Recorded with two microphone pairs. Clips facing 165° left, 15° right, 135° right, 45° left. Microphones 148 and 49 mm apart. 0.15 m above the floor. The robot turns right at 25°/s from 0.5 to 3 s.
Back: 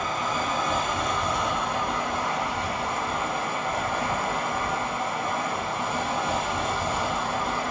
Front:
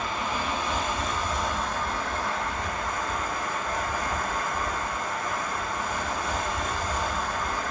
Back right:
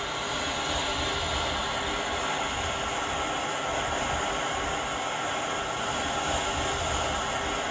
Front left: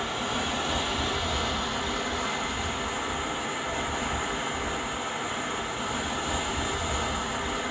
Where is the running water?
120° left, 1.6 m; by 7.7 s 175° right, 1.6 m.